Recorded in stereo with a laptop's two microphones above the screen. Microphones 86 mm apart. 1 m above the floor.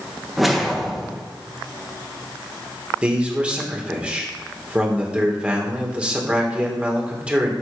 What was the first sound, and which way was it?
A whoosh, centre (ahead or behind).